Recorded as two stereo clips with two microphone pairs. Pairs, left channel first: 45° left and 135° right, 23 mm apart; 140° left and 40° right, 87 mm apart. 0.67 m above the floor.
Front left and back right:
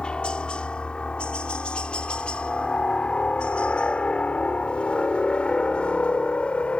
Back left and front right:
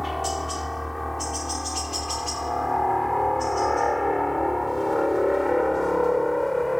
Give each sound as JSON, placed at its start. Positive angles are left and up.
{"t": 0.0, "sound": "a helicopter", "azimuth_deg": 50}